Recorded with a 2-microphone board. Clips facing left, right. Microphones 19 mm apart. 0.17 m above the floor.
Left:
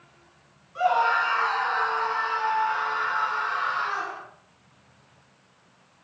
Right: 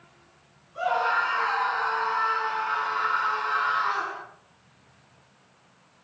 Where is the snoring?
No snoring in this recording.